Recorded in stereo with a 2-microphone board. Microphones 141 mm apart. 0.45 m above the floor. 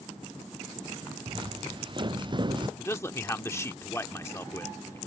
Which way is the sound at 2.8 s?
20° left (ahead or behind).